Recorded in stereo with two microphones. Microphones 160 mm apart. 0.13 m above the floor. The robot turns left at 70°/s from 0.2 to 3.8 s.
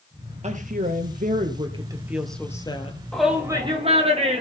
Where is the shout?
5° left, 5.5 m; by 4.4 s 40° right, 5.5 m.